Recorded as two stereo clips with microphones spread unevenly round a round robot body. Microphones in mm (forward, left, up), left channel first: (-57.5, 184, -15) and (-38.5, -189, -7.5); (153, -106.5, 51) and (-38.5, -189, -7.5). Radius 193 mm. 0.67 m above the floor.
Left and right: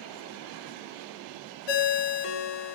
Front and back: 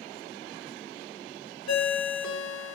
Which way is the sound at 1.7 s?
60° left.